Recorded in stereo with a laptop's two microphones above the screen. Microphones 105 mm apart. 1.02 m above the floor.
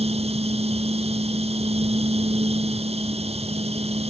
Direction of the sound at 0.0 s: 75° right (ahead or behind).